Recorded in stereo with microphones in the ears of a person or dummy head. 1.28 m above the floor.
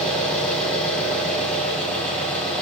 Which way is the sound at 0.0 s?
5° left (ahead or behind).